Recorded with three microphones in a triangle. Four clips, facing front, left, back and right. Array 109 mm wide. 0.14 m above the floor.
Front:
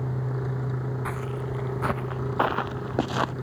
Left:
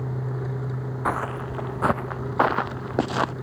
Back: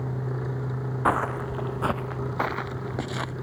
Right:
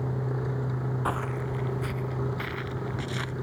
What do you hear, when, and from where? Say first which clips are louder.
1.1 s footsteps: left 6 dB, back 7 dB; 165° left; by 3.3 s 65° left